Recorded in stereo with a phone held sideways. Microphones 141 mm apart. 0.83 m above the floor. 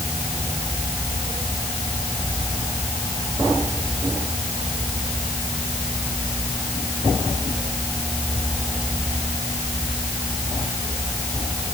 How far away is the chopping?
No chopping in this recording.